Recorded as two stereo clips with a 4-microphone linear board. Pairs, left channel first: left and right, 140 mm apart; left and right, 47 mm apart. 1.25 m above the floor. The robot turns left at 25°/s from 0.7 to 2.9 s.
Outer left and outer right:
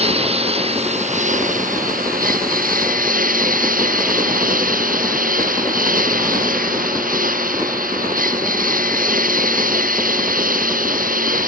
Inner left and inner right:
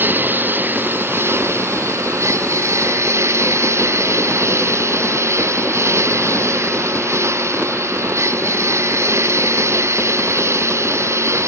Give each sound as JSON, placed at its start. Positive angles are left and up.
{"t": 0.0, "sound": "a lawn mower", "azimuth_deg": -45}